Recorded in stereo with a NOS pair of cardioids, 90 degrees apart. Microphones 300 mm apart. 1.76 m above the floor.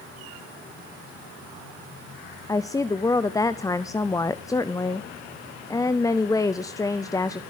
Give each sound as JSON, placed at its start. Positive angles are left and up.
{"t": 2.5, "sound": "a woman speaking", "azimuth_deg": 10, "distance_m": 0.5}